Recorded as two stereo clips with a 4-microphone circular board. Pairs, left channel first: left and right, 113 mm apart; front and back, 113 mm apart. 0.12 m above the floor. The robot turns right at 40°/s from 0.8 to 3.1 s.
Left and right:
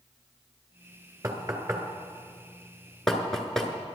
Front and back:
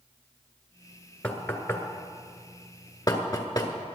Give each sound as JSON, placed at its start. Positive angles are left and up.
{"t": 1.2, "sound": "knocking", "azimuth_deg": -70, "distance_m": 1.4}